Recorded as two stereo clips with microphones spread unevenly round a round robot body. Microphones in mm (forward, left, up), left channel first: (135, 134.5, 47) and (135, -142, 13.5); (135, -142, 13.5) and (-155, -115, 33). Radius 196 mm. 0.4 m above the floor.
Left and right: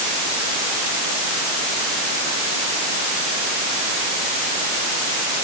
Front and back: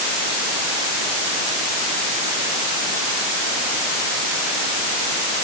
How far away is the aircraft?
I don't hear an aircraft.